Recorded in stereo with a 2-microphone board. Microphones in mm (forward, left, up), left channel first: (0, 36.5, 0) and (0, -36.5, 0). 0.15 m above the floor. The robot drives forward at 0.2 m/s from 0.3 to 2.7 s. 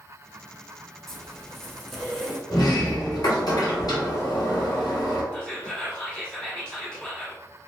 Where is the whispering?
10° left (ahead or behind), 1.1 m.